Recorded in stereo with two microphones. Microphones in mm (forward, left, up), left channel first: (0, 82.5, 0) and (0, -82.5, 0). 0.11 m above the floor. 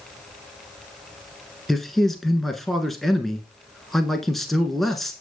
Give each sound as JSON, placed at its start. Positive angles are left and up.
{"t": 1.7, "sound": "a man speaking", "side_deg": 0, "distance_m": 1.1}